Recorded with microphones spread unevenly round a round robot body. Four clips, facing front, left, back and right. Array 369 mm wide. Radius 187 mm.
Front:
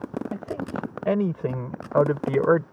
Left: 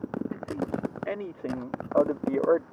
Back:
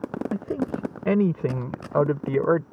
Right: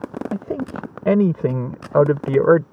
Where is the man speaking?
115° right; by 2.6 s 85° right.